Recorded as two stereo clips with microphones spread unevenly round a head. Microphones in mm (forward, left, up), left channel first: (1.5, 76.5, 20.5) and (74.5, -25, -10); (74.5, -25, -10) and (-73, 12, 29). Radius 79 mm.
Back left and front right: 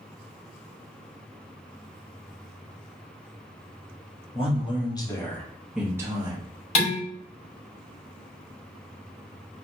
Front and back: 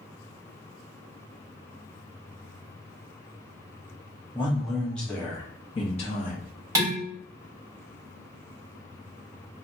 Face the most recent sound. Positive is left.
turn(degrees=95)